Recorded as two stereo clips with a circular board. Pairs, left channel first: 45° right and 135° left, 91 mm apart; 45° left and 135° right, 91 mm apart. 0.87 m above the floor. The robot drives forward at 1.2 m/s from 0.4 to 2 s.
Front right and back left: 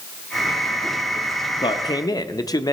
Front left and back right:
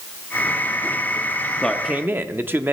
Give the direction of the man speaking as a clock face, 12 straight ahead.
1 o'clock.